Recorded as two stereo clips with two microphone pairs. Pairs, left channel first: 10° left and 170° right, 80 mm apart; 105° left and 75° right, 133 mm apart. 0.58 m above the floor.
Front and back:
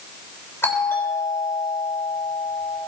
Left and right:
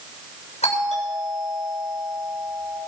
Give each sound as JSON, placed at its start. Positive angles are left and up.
{"t": 0.6, "sound": "a doorbell", "azimuth_deg": 70, "distance_m": 6.5}